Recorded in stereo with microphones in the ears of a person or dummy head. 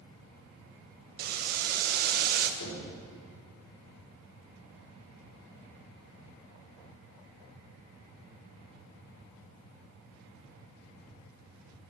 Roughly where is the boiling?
Right.